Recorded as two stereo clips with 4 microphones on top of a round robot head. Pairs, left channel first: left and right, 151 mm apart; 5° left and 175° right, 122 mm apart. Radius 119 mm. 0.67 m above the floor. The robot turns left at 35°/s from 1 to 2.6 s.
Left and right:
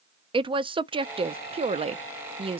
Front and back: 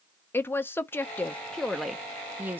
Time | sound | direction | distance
0.3 | a woman speaking | 55° right | 0.5 m